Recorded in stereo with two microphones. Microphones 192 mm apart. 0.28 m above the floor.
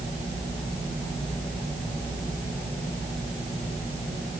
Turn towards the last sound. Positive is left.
No sound to turn to.